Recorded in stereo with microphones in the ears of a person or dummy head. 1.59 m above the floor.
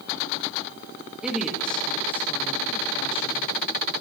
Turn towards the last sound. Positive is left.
turn(degrees=35)  # may be behind; listen again after turning